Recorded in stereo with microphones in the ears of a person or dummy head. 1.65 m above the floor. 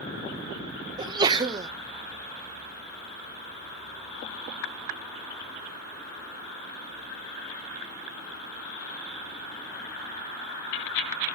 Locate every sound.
1.0 s a sneeze: 20° right (ahead or behind), 1.4 m